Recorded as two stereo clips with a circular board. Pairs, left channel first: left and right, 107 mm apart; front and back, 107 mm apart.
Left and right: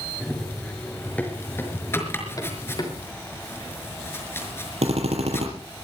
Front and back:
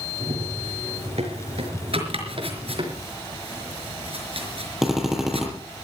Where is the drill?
95° right, 5 m.